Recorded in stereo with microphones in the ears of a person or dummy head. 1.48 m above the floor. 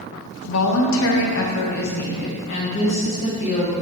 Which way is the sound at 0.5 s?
80° left.